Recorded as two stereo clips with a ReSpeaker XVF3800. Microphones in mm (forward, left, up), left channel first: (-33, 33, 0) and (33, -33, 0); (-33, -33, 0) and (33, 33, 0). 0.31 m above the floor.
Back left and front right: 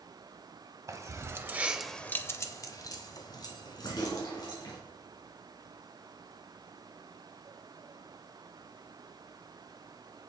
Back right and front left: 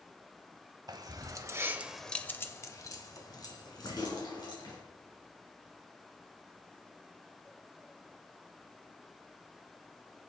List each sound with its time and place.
0.9 s keys jangling: 5° left, 1.5 m; by 4.8 s straight behind, 3.5 m